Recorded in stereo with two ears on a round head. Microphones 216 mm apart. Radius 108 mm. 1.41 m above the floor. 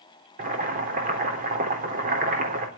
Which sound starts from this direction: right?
Boiling, at 0.4 s.